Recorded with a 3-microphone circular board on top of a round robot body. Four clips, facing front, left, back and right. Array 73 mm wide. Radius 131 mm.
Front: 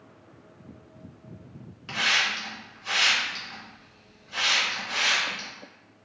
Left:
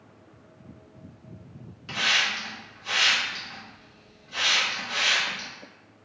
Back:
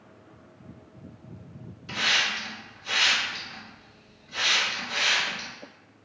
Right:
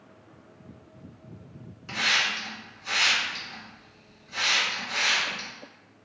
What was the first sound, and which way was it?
A hiss, 5° left.